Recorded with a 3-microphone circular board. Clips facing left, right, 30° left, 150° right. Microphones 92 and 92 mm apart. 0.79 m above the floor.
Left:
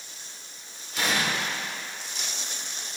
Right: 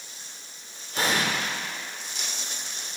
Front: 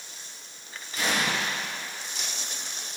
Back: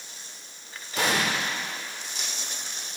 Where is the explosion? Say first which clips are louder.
Right 1 dB, back 2 dB; 140° right, 1.9 m.